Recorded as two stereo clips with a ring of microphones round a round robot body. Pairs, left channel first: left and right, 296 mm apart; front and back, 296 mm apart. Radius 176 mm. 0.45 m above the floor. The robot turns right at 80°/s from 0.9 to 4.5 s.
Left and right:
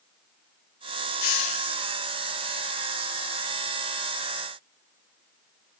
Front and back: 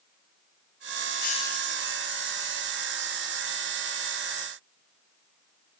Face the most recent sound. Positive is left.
turn(degrees=-35)